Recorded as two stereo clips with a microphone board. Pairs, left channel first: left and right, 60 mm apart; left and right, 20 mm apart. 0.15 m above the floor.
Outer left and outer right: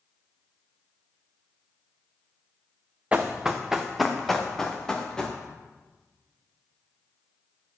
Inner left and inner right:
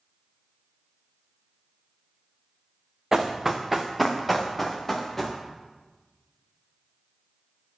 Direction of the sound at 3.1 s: 20° right (ahead or behind).